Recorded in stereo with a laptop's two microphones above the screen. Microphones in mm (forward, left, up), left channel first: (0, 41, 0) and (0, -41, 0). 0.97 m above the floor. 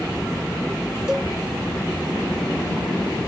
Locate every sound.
1.1 s a cowbell: 10° right (ahead or behind), 0.5 m